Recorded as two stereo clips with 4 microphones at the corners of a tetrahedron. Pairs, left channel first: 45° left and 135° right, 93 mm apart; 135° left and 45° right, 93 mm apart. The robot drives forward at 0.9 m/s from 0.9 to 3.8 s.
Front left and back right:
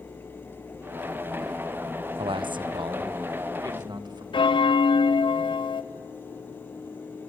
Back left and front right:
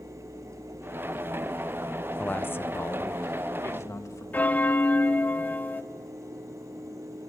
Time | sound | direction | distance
2.2 | a man speaking | 150° right | 0.6 m
4.3 | a bell | 65° left | 0.5 m